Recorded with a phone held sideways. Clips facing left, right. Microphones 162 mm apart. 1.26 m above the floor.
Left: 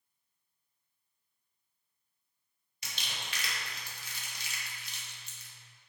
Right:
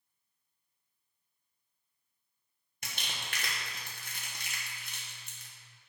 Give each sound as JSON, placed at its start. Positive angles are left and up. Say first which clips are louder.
{"t": 2.8, "sound": "crumpling", "louder": "right 1 dB", "side_deg": -55, "distance_m": 1.3}